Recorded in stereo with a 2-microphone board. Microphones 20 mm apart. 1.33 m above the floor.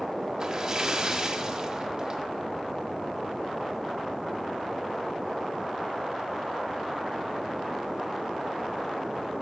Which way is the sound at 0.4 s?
35° right (ahead or behind).